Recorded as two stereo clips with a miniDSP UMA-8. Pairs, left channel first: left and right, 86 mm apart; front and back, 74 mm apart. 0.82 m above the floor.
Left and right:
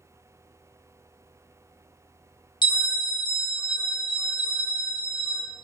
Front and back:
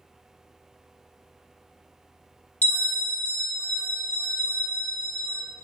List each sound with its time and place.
2.6 s a bell: 70° left, 0.7 m